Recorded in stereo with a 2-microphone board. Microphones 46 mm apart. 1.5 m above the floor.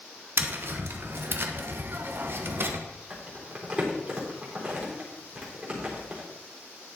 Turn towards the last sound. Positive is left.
turn(degrees=-25)  # may be behind; listen again after turning